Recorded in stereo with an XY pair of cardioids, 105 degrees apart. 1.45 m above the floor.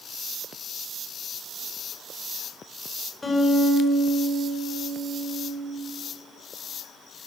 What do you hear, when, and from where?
3.2 s a guitar: 20° left, 4 m